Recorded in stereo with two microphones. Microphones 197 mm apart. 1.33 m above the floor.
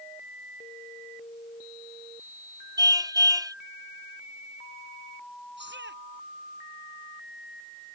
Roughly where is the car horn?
Centre.